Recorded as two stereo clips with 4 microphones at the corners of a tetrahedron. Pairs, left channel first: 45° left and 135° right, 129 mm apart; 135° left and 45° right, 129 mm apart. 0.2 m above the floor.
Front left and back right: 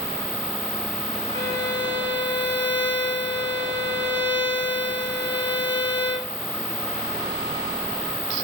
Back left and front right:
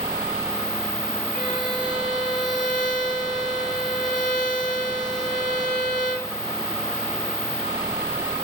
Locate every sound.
1.3 s a violin: 110° left, 7 m